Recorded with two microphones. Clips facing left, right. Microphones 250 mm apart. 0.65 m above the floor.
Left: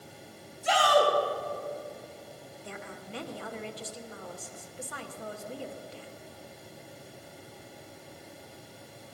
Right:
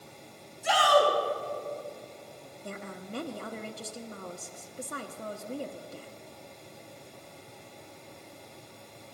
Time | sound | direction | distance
0.6 | a shout | 80° right | 4.5 m
2.6 | a woman speaking | 50° right (ahead or behind) | 0.9 m